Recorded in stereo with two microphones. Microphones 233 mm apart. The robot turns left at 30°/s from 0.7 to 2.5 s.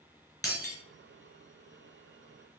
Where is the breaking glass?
15° left (ahead or behind), 3.5 m.